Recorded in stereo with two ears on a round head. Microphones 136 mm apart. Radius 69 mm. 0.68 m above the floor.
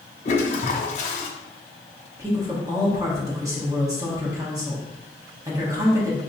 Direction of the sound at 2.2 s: 20° right (ahead or behind).